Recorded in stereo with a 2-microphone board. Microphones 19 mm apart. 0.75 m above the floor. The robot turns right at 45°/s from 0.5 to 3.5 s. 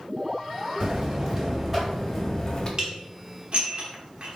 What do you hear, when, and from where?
0.8 s a buzzer: 55° right, 1.5 m; by 2.7 s 30° left, 1.5 m
2.8 s dishes clattering: 40° right (ahead or behind), 1.1 m; by 4.4 s 65° right (ahead or behind), 1.1 m